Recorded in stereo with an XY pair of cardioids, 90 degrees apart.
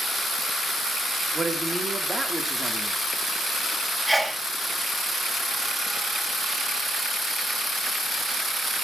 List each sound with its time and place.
1.3 s a man speaking: 25° right, 2.5 m
4.1 s a sneeze: 10° right, 1.5 m